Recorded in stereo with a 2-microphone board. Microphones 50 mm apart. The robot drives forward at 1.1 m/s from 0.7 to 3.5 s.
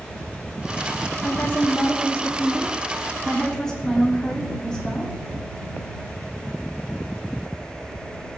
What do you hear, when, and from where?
1.2 s a woman speaking: 40° left (ahead or behind), 0.7 m; by 5.1 s 10° left (ahead or behind), 2.5 m